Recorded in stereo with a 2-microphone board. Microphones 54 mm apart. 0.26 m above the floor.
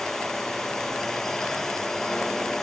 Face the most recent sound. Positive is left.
turn(degrees=10)  # may be behind; listen again after turning